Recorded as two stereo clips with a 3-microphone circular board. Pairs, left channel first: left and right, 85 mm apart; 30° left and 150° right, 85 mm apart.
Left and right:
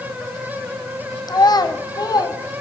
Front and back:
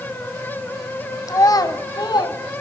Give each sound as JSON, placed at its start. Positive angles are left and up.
{"t": 1.3, "sound": "a child speaking", "azimuth_deg": 70, "distance_m": 1.1}